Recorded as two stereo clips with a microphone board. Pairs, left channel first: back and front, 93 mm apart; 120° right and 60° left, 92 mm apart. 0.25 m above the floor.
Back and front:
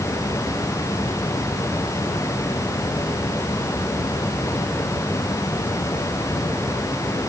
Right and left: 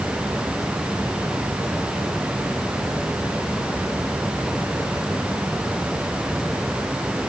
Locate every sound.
Only background noise.